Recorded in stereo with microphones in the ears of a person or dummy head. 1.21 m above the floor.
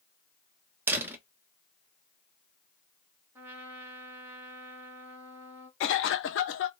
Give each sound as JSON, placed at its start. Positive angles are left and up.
{"t": 0.9, "sound": "a door slam", "side_deg": -15, "distance_m": 0.6}
{"t": 3.4, "sound": "a trumpet", "side_deg": -15, "distance_m": 0.9}
{"t": 5.8, "sound": "a cough", "side_deg": 55, "distance_m": 0.5}